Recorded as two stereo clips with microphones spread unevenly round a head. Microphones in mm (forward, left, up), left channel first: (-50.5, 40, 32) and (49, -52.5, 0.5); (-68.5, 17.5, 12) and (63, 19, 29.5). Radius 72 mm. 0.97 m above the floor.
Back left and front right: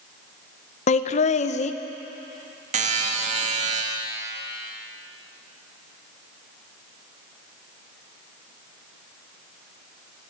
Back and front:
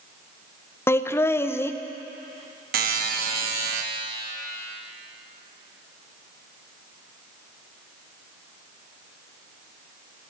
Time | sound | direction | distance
0.9 | laughter | 135° left | 0.6 m
2.7 | a buzzer | 20° right | 1.4 m